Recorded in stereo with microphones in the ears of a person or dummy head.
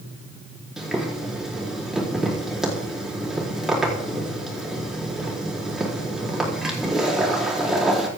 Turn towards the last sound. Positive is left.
turn(degrees=0)  # may be behind; listen again after turning